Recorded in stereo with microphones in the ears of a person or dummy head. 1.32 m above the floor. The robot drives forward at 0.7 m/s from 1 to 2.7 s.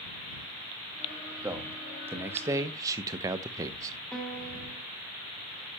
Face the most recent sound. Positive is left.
turn(degrees=0)  # may be behind; listen again after turning